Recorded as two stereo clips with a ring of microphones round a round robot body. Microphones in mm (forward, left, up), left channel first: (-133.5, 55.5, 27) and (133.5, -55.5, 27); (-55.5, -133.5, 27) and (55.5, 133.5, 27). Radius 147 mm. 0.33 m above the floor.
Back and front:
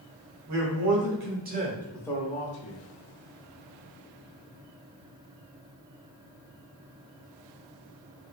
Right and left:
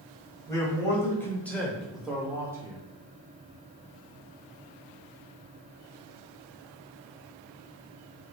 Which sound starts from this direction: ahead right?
A man speaking, at 0.5 s.